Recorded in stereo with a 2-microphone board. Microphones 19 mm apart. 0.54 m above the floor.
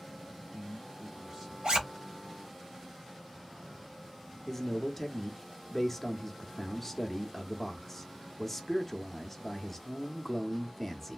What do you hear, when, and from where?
0.2 s a man speaking: 35° right (ahead or behind), 1.6 m
1.6 s a zipper: 75° right (ahead or behind), 0.9 m
4.5 s a man speaking: 15° left (ahead or behind), 0.7 m